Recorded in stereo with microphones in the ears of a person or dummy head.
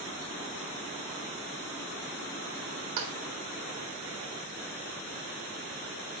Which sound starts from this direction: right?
A clap, at 3.0 s.